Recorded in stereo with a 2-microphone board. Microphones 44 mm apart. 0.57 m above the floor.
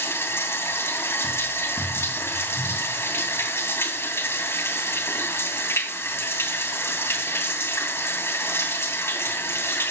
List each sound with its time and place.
0.0 s running water: 70° left (ahead or behind), 2.5 m